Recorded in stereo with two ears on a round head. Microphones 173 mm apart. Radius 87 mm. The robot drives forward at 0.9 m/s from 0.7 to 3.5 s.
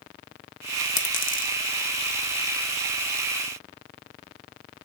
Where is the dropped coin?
40° left (ahead or behind), 1.3 m; by 1.6 s 45° left (ahead or behind), 1.1 m.